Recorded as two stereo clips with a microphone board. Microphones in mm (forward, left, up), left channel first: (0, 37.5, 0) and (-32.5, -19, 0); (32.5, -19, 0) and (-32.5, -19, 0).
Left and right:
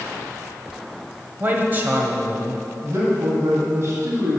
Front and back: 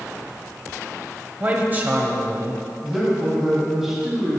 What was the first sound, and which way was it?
A man speaking, 145° right.